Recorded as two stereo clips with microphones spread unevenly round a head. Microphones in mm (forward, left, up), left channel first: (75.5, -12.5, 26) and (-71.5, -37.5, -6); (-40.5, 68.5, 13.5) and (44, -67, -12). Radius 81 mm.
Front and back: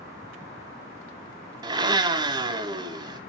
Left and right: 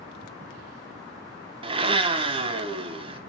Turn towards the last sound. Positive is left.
turn(degrees=-110)